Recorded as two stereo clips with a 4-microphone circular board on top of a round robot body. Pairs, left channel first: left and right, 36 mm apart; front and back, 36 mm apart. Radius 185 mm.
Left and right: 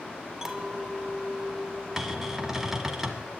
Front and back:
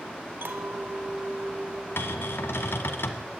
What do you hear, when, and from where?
0.4 s a clink: 170° right, 2.5 m
2.0 s a cupboard door: 10° right, 1.4 m